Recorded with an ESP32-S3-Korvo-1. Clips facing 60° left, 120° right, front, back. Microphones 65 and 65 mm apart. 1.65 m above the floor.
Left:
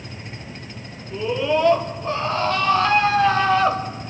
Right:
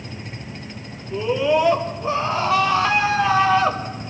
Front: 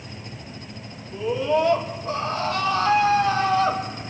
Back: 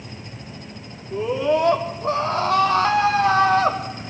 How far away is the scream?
About 5 m.